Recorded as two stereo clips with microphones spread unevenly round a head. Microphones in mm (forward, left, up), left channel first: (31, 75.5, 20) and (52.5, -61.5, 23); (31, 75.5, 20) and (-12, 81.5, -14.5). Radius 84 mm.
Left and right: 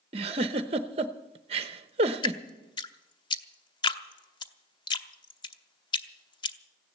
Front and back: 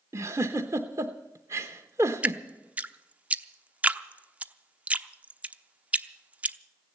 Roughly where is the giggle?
Behind right.